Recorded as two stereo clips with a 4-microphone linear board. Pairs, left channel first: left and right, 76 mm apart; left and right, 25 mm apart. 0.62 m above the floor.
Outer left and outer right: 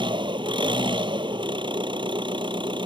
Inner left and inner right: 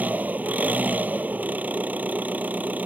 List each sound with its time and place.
0.0 s an engine running: 80° right